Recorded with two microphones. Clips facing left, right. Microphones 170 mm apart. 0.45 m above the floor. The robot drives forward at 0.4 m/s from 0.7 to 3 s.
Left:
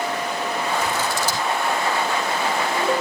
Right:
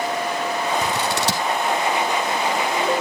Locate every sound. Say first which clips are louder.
0.8 s scissors: right 1 dB; 60° right (ahead or behind), 2 m; by 1.5 s 70° right (ahead or behind), 2.0 m